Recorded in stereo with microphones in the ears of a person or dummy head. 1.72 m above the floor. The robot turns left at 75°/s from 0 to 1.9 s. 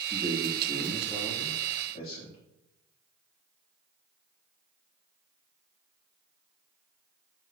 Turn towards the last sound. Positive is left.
turn(degrees=80)